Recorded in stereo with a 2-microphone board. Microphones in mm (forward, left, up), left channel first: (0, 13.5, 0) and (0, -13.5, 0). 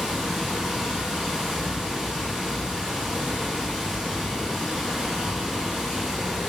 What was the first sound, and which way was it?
Running water, 30° right (ahead or behind).